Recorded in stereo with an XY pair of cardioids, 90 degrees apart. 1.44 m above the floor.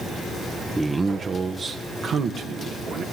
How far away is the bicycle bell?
No bicycle bell in this recording.